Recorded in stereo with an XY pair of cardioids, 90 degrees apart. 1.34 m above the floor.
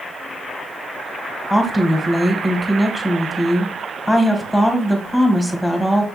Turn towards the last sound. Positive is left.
turn(degrees=0)